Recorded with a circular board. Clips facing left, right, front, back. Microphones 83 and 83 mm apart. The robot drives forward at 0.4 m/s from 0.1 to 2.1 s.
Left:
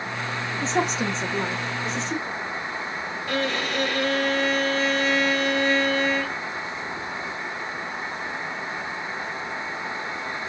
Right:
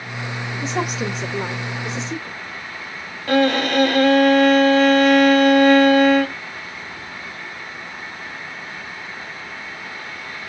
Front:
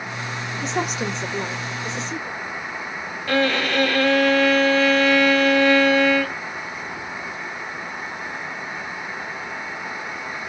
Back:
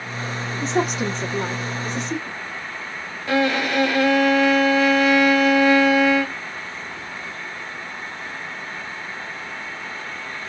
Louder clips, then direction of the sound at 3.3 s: Right 10 dB, back 1 dB; 110° right.